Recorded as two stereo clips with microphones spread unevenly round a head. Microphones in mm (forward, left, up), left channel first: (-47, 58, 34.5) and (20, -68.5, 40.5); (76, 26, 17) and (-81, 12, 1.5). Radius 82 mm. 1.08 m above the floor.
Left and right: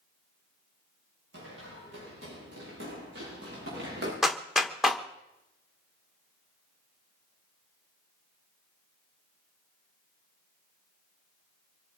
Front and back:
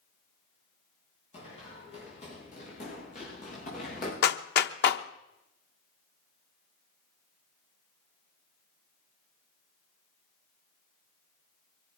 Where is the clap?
25° left, 1.0 m.